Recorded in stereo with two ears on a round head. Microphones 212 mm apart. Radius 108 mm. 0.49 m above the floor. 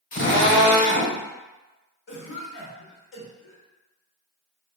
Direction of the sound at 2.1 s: 55° left (ahead or behind).